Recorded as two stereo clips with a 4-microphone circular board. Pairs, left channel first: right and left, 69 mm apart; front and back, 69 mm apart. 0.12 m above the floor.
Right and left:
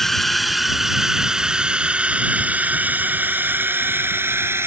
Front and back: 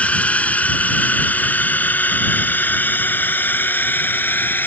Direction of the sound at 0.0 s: 15° right.